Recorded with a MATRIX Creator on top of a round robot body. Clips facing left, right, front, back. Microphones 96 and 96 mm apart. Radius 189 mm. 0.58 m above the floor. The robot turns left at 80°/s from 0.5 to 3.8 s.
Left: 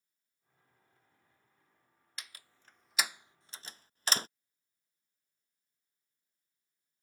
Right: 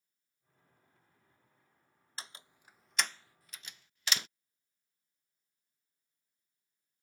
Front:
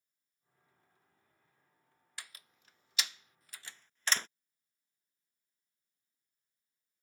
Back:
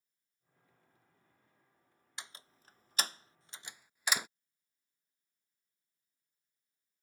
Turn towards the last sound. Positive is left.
turn(degrees=105)